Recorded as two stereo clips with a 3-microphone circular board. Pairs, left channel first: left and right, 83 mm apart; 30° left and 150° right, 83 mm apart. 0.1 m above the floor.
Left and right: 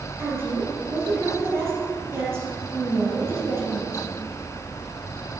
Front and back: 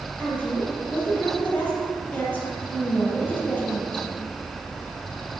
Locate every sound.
0.2 s a woman speaking: 35° right, 2 m